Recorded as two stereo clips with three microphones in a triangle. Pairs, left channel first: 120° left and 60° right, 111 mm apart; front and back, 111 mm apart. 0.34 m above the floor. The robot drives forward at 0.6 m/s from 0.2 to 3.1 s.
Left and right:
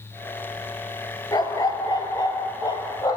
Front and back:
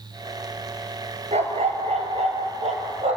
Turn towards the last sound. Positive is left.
turn(degrees=175)